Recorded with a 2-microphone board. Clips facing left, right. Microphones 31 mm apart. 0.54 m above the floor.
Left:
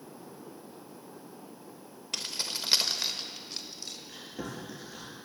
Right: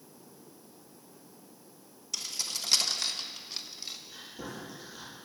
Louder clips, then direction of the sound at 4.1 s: Left 2 dB; 90° left.